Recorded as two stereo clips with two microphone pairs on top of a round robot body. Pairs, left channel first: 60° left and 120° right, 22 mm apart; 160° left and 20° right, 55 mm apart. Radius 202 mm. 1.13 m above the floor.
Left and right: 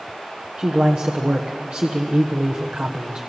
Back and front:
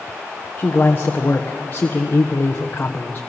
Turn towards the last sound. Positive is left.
turn(degrees=-150)